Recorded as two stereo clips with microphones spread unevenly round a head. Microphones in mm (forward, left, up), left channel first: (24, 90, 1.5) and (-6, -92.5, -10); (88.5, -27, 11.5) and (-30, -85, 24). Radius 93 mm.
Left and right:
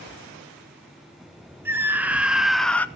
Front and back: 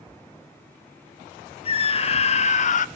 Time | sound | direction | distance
1.6 | a scream | 20° right | 1.6 m